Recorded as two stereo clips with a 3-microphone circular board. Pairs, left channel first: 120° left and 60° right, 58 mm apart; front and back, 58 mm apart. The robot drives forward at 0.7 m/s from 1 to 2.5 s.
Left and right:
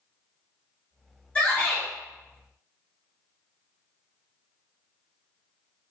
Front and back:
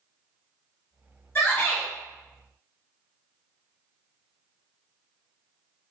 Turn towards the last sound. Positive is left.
turn(degrees=80)